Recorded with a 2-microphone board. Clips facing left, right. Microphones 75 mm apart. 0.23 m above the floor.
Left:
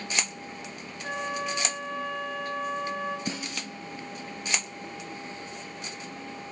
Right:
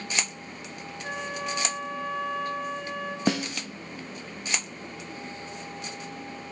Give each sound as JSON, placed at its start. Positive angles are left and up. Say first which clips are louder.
{"t": 1.0, "sound": "a flute", "louder": "left 2 dB", "side_deg": 0, "distance_m": 3.0}
{"t": 3.3, "sound": "a snare drum", "louder": "right 8 dB", "side_deg": -75, "distance_m": 2.0}